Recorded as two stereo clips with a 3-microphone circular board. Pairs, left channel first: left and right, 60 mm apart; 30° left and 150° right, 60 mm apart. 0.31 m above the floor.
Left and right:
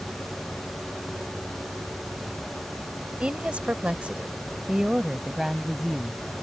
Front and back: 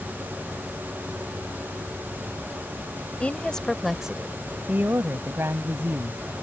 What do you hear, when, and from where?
3.2 s a woman speaking: 30° right; by 6.2 s straight behind